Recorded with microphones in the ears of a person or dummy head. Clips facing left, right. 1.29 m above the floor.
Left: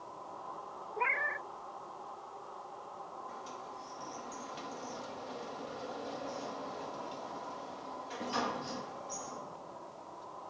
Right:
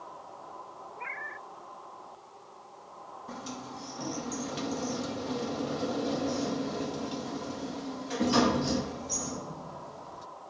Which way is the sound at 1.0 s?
55° left (ahead or behind).